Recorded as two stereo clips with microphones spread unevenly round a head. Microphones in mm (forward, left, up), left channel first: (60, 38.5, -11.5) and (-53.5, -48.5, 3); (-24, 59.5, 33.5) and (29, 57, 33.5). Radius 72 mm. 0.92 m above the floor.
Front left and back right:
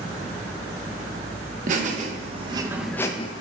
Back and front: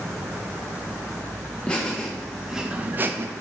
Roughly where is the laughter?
Right.